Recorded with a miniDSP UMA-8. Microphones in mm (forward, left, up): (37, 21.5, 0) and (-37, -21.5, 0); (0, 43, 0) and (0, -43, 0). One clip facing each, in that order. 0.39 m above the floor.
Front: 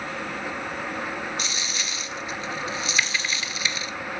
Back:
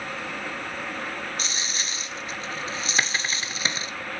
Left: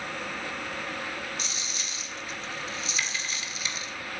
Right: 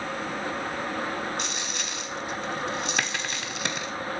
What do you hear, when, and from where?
1.4 s a dropped coin: 100° right, 0.6 m